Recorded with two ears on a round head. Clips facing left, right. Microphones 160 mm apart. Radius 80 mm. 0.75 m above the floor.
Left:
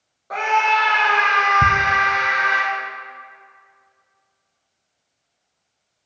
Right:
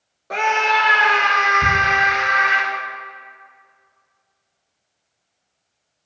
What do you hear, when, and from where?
0.3 s a scream: 30° right (ahead or behind), 0.7 m; by 2.6 s 50° right (ahead or behind), 2.5 m
1.6 s ticking: 70° left (ahead or behind), 2.5 m